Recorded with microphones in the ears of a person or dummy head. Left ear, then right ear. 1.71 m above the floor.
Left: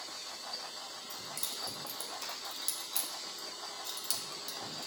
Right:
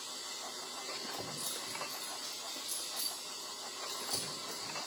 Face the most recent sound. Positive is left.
turn(degrees=55)  # may be behind; listen again after turning